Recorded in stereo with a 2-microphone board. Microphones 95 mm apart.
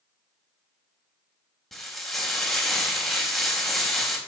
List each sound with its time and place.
1.7 s frying: centre (ahead or behind), 1.8 m